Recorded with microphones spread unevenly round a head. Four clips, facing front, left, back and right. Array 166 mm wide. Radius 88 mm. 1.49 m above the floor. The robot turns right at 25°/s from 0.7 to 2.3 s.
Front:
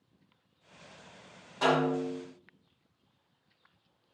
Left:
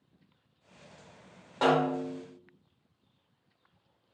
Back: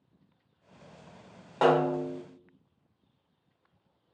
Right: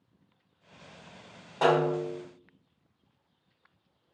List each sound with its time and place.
1.6 s a snare drum: 175° left, 2.5 m; by 2.2 s 170° right, 2.5 m